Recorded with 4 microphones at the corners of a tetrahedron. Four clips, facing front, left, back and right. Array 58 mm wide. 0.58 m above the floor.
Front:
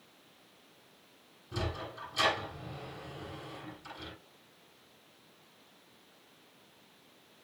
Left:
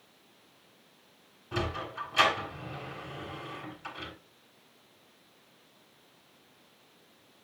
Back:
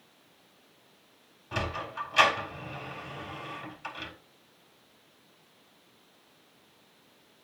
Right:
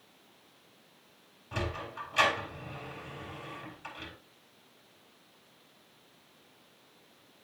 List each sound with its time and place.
1.5 s a sliding door: 175° right, 7 m